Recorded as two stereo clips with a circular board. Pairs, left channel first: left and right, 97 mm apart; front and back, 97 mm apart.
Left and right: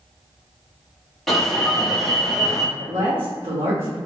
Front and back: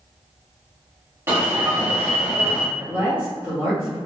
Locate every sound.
1.3 s an alarm: 170° left, 1.1 m
2.8 s a woman speaking: 115° right, 1.5 m